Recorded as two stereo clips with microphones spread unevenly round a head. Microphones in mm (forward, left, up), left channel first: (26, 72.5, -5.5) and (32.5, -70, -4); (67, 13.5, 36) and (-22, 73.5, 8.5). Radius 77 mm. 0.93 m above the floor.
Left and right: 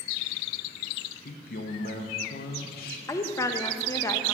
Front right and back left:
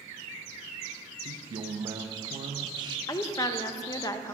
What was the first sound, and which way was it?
A man speaking, 115° left.